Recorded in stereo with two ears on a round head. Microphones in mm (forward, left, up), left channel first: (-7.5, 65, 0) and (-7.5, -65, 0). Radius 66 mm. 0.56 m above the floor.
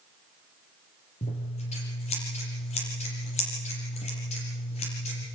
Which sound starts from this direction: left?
Scissors, at 1.2 s.